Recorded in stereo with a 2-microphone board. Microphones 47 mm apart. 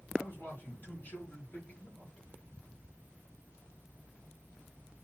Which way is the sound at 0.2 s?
50° left (ahead or behind).